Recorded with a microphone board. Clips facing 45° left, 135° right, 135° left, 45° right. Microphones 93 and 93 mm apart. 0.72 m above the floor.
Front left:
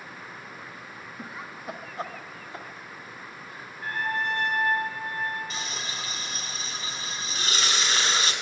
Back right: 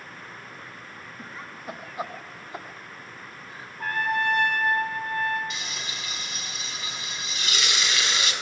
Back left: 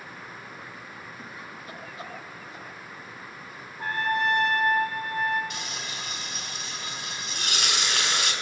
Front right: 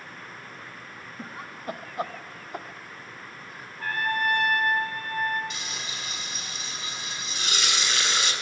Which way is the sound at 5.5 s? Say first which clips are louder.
Front left 1 dB, back left 1 dB; 100° left.